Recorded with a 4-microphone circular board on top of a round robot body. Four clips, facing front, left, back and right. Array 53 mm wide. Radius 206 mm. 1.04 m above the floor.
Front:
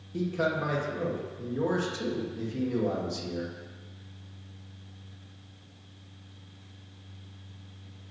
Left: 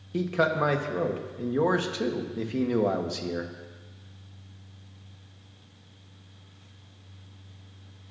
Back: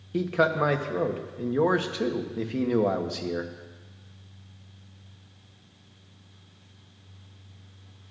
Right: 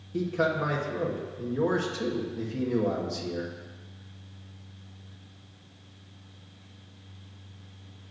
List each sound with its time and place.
0.1 s a man speaking: 155° left, 1.2 m